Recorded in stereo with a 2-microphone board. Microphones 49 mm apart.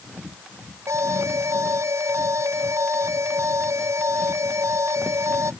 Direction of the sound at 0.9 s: 85° right.